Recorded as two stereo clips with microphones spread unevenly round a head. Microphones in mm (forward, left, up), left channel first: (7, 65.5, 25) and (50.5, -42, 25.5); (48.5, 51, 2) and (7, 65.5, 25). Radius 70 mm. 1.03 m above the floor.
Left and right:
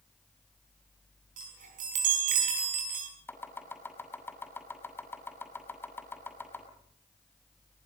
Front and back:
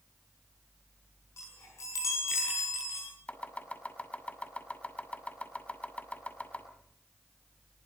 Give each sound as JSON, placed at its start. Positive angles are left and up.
{"t": 1.4, "sound": "a chime", "azimuth_deg": -60, "distance_m": 5.0}
{"t": 3.3, "sound": "chopping", "azimuth_deg": 40, "distance_m": 6.5}